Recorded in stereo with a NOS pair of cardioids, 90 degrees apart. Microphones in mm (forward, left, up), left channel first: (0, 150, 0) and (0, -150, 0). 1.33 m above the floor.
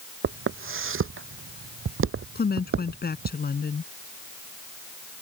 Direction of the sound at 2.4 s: 30° left.